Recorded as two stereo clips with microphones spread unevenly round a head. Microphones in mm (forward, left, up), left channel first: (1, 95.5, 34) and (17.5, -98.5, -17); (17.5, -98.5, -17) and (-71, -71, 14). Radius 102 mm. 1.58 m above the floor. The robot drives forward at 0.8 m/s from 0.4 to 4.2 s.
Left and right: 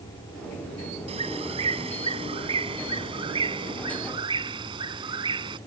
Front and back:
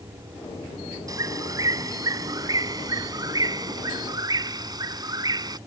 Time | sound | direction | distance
1.1 | a bird | 150° right | ?